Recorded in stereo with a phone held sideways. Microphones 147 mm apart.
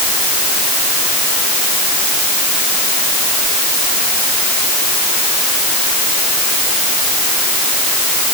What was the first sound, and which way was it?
Only background noise.